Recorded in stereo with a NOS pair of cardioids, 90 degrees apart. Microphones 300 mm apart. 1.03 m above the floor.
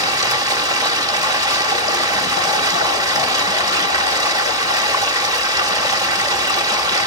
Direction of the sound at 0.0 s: 10° right.